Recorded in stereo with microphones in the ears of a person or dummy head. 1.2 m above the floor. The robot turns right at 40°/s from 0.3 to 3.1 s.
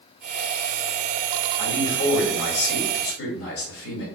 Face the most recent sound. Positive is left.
turn(degrees=90)